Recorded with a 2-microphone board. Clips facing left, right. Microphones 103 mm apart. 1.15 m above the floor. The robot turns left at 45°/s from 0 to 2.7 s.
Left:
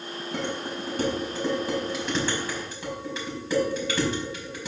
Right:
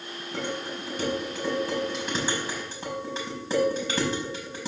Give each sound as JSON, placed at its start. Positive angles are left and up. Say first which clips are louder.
{"t": 0.3, "sound": "dishes clattering", "louder": "left 1 dB", "side_deg": 75, "distance_m": 5.0}